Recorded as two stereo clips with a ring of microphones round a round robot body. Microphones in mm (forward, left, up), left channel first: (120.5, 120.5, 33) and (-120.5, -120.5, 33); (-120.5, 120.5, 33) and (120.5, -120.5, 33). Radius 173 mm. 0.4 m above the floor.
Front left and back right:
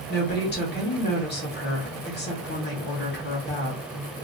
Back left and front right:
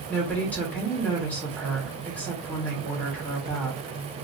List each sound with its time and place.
0.1 s a woman speaking: 55° left, 1.4 m